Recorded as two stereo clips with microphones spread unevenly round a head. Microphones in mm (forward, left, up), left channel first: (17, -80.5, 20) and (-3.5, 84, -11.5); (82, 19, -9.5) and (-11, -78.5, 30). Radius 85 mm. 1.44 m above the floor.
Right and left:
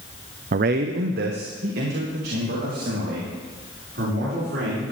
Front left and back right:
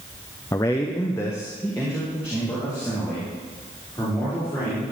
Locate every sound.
0.5 s a man speaking: 105° left, 0.5 m; by 4.9 s 125° left, 6 m